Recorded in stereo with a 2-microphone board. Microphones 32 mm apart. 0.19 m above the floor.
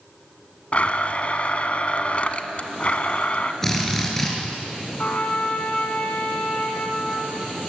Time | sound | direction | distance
0.7 | a blender | 45° left (ahead or behind) | 1.3 m
3.6 | a drill | 15° left (ahead or behind) | 4 m
5.0 | a trumpet | 45° left (ahead or behind) | 1.7 m